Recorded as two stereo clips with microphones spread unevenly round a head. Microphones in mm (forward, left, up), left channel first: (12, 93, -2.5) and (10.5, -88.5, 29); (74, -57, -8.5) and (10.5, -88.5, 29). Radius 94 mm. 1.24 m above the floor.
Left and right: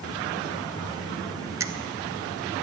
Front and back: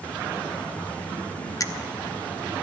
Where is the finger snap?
15° right, 0.9 m.